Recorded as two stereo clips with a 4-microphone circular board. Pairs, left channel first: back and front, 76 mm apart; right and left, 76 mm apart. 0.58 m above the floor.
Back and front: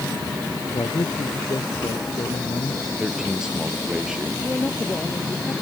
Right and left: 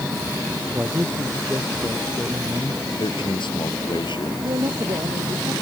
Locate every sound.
0.7 s a man speaking: 150° left; by 2.9 s 155° left
3.0 s a man speaking: 80° right
4.4 s a man speaking: 110° left